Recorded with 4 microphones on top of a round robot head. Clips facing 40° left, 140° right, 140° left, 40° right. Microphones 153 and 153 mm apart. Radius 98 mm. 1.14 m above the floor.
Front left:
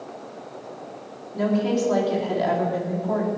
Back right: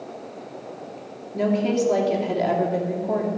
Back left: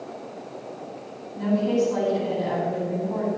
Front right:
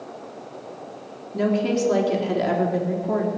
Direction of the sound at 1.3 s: 65° right.